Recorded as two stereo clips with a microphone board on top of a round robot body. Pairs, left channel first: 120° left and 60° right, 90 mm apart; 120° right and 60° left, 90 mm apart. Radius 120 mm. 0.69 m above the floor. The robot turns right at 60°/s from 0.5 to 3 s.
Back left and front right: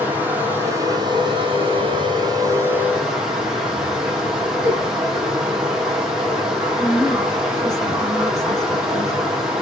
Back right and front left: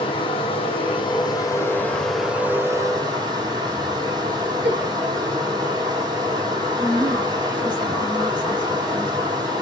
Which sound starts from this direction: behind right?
Running water, at 0.0 s.